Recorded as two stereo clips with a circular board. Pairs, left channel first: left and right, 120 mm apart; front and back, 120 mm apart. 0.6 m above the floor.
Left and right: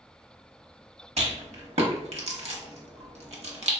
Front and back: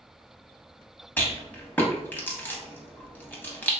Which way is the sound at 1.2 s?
75° right.